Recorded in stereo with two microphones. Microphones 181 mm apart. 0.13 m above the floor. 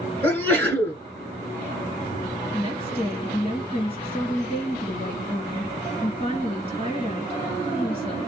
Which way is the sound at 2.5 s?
35° left (ahead or behind).